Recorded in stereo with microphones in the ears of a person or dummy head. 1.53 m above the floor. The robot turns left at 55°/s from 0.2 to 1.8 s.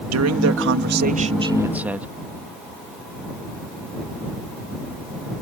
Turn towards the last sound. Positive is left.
turn(degrees=-175)